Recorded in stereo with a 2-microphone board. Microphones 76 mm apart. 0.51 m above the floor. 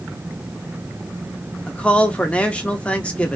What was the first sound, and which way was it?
A man speaking, 15° left (ahead or behind).